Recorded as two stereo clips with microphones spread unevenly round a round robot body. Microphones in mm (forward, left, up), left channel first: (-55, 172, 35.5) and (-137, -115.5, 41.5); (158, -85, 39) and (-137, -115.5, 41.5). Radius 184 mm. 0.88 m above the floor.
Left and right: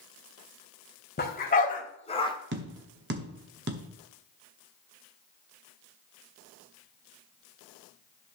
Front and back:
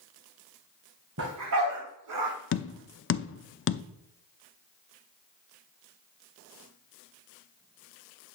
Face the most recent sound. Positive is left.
turn(degrees=-45)